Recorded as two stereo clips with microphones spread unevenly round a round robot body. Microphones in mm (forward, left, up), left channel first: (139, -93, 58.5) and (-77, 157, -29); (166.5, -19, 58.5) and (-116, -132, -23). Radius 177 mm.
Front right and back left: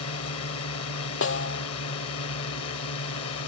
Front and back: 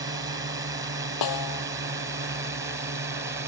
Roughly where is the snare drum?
Ahead.